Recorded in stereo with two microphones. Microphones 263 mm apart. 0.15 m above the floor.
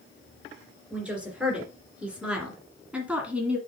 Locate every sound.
0.9 s a woman speaking: 5° right (ahead or behind), 3 m